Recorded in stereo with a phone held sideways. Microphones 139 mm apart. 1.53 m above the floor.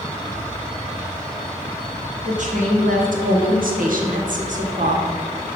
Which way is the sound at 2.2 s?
60° right (ahead or behind).